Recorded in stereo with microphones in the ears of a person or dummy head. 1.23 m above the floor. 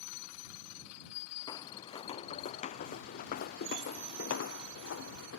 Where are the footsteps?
15° left (ahead or behind); by 5.4 s 60° left (ahead or behind).